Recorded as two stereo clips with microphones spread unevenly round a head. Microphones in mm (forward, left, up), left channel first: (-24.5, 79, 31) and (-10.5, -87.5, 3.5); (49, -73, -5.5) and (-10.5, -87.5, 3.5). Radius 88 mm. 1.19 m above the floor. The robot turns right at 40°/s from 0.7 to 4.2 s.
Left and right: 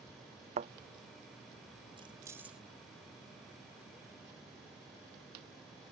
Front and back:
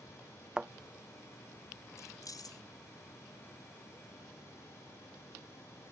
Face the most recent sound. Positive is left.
turn(degrees=70)